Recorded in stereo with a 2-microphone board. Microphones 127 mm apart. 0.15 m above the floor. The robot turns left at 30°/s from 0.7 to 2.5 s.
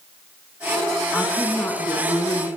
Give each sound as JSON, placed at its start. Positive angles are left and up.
{"t": 1.1, "sound": "a woman speaking", "side_deg": 10, "distance_m": 1.4}